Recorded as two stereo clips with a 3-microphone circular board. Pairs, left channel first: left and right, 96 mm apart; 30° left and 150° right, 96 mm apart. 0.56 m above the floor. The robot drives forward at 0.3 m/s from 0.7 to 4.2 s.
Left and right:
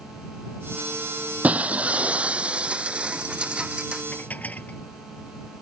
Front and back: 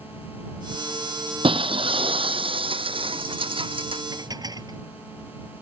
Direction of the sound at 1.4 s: 165° right.